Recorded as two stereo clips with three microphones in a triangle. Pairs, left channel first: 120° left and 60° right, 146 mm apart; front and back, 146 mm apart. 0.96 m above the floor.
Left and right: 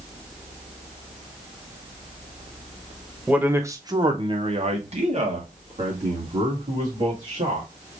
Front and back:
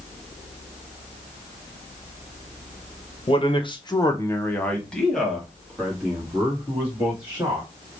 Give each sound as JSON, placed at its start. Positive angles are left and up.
{"t": 3.3, "sound": "a man speaking", "azimuth_deg": 15, "distance_m": 0.9}